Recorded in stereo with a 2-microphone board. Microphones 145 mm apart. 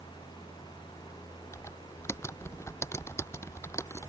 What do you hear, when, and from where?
1.5 s typing on a keyboard: 20° left (ahead or behind)